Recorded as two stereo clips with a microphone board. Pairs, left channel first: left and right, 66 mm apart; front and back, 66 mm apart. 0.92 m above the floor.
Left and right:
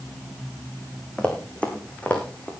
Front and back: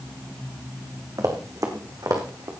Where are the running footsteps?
160° left, 3 m; by 2.5 s 150° left, 3.5 m.